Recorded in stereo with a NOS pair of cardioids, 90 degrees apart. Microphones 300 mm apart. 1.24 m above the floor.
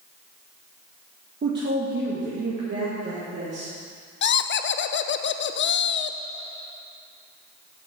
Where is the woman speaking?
35° right, 1.3 m; by 3.7 s 40° right, 3 m.